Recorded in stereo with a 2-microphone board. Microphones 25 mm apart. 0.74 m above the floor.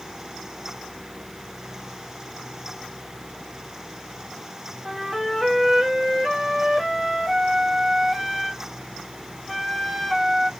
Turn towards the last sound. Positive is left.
turn(degrees=0)  # may be behind; listen again after turning